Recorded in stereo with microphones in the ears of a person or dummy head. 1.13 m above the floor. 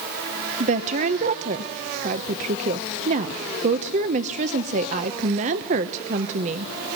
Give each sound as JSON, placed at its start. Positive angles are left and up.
{"t": 0.6, "sound": "a woman speaking", "side_deg": -40, "distance_m": 1.0}